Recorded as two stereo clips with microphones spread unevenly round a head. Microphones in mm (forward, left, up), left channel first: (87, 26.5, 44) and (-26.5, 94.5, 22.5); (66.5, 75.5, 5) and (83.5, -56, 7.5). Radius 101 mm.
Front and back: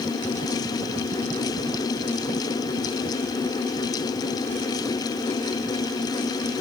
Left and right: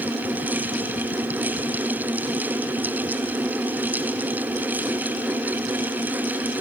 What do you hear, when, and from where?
Only background noise.